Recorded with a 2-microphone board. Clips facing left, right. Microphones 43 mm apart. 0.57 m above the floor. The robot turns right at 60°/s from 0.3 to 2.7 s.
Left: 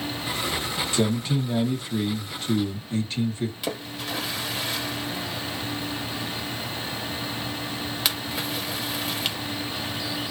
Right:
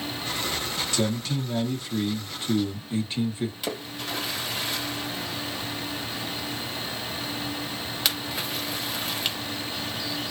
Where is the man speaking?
25° left (ahead or behind), 1.1 m; by 3.5 s 15° right (ahead or behind), 1.1 m.